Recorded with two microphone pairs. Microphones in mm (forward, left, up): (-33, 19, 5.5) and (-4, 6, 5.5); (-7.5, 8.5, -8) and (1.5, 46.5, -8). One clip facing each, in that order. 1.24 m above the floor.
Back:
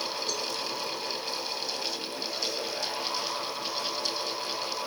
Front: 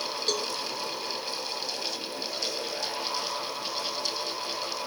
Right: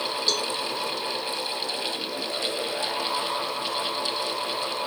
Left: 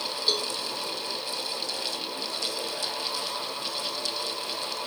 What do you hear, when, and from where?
0.3 s a cowbell: straight ahead, 2 m